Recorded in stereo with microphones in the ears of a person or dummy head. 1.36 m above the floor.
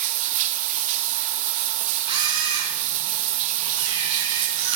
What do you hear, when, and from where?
0.0 s running water: 45° right (ahead or behind), 1.4 m
2.1 s a camera shutter: 40° right (ahead or behind), 4 m